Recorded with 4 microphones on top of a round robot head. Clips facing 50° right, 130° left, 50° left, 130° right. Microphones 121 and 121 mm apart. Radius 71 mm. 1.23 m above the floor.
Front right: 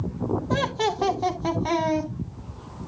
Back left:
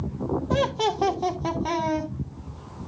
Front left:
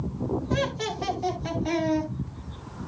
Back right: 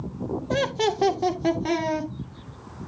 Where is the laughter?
150° right, 1.3 m; by 2.1 s 140° right, 3 m.